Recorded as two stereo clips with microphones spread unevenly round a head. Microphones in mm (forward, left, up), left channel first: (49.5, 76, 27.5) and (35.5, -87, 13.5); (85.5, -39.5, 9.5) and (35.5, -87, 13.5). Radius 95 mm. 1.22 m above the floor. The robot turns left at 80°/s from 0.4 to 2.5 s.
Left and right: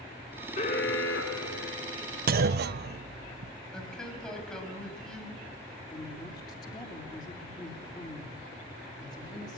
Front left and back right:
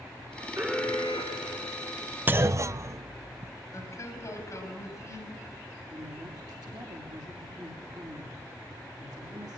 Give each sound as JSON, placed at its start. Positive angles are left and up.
{"t": 0.6, "sound": "an alarm", "azimuth_deg": 145, "distance_m": 3.0}
{"t": 2.3, "sound": "a clunk", "azimuth_deg": -70, "distance_m": 0.7}
{"t": 3.7, "sound": "a man speaking", "azimuth_deg": 0, "distance_m": 7.0}
{"t": 5.9, "sound": "a woman speaking", "azimuth_deg": 155, "distance_m": 3.0}